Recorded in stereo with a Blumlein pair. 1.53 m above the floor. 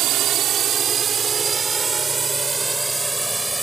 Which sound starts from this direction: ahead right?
A drone, at 0.0 s.